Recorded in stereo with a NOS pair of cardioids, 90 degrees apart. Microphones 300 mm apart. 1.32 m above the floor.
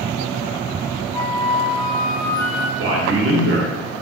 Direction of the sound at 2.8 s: 45° right.